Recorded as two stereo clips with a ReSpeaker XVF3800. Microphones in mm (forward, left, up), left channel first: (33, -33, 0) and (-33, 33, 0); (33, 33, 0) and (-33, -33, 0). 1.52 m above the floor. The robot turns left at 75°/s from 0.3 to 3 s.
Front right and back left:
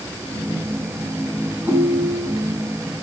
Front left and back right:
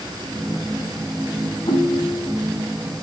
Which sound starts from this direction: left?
A ringtone, at 1.7 s.